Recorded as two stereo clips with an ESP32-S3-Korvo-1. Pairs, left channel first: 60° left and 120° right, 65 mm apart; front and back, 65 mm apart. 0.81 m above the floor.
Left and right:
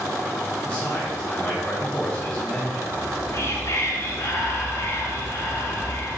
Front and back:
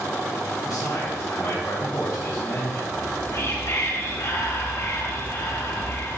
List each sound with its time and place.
0.6 s a man speaking: 10° right, 4 m
2.9 s whispering: 30° left, 2.5 m